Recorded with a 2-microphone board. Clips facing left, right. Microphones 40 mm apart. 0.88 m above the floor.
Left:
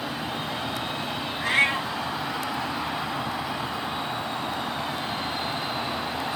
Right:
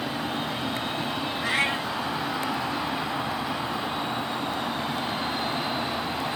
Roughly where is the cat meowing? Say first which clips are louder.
Left 4 dB; left.